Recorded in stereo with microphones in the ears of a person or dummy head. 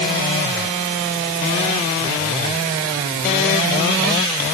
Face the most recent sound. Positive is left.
No sound to turn to.